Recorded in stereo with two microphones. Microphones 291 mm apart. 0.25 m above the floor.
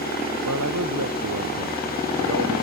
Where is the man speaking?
85° right.